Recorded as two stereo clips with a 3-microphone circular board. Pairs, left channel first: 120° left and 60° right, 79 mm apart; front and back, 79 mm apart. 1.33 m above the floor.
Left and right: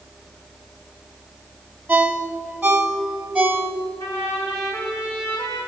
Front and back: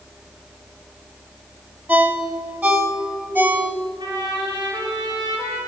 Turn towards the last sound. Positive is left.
turn(degrees=170)